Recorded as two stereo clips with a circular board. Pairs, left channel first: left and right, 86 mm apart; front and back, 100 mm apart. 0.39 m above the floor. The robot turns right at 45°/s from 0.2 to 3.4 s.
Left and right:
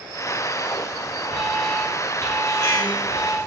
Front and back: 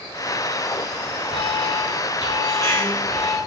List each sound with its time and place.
1.3 s an alarm: 5° right, 4.5 m; by 3.4 s 85° left, 4.5 m